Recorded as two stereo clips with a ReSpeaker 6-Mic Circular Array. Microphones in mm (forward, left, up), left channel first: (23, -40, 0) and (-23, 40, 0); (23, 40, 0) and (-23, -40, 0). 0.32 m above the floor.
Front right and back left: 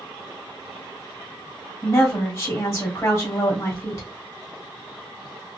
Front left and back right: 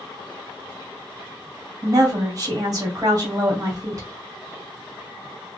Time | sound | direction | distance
1.8 | a woman speaking | 95° right | 1.3 m